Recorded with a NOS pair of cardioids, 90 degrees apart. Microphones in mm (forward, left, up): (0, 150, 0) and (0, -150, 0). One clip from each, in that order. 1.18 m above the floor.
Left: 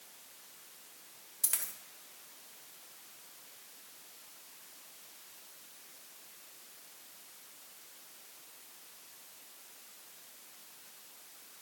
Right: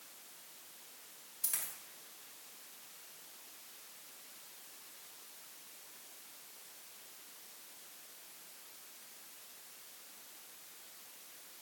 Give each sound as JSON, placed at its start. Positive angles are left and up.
{"t": 1.4, "sound": "a dropped coin", "azimuth_deg": 50, "distance_m": 2.0}